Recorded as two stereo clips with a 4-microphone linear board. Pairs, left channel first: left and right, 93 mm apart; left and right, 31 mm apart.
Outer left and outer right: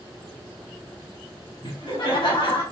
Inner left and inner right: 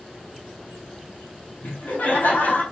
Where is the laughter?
75° left (ahead or behind), 4 m.